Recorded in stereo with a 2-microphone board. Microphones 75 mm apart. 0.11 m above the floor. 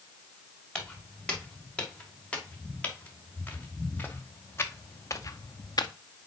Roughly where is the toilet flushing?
I don't hear a toilet flushing.